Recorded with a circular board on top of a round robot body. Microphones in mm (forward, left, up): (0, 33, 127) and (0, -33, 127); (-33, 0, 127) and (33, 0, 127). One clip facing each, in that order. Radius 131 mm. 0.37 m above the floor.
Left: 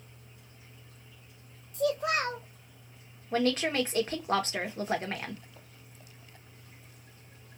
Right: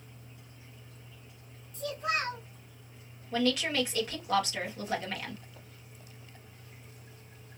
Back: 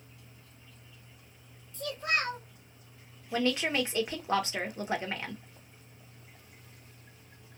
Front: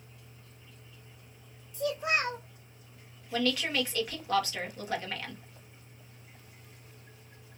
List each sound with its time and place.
1.7 s a child speaking: 75° left, 1.2 m
3.3 s a woman speaking: 125° left, 1.1 m